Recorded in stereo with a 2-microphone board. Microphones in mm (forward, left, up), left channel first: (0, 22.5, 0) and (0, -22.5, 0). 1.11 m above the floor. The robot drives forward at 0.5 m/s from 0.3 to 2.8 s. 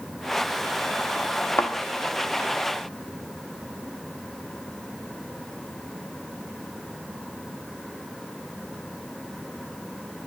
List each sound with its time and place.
1.6 s a thud: 60° left (ahead or behind), 1.0 m